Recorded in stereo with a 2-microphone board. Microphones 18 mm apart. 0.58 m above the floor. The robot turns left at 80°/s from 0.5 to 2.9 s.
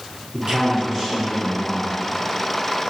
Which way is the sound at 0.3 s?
100° right.